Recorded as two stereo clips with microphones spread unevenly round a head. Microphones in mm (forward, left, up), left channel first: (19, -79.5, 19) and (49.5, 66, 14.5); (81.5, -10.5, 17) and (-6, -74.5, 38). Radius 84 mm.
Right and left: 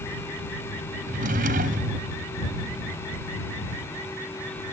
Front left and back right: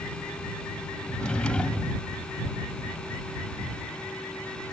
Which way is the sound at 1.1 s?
120° left.